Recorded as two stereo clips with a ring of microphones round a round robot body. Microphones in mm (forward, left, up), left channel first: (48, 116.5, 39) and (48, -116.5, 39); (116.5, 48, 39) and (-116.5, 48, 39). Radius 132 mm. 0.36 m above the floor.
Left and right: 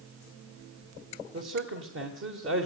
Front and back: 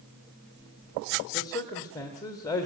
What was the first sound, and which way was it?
A man speaking, 75° right.